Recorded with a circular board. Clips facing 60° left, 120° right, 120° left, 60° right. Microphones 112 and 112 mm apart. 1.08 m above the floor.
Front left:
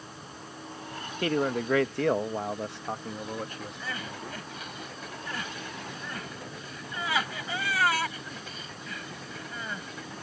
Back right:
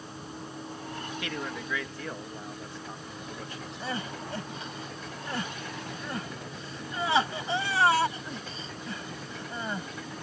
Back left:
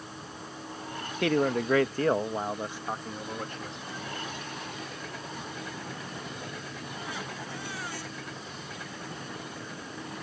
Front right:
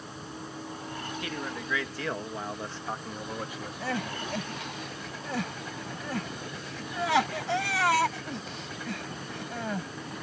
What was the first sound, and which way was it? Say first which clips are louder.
A man speaking: front left 13 dB, back left 15 dB; 105° left.